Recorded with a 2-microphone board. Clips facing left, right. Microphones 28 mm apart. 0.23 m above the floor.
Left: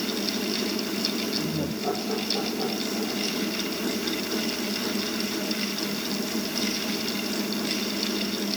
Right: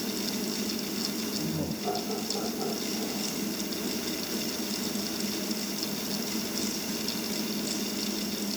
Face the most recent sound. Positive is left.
turn(degrees=25)  # may be behind; listen again after turning